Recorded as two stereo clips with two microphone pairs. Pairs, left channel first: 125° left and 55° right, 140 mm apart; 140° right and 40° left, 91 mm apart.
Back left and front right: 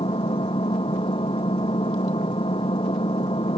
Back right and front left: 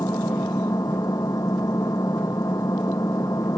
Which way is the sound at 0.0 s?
170° left.